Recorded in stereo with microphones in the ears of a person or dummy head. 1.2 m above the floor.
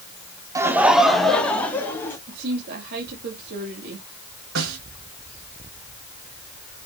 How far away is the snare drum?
About 5 m.